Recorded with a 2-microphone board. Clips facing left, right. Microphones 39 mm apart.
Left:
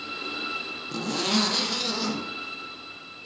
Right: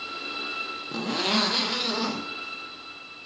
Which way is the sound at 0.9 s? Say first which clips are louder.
Even; 20° right (ahead or behind).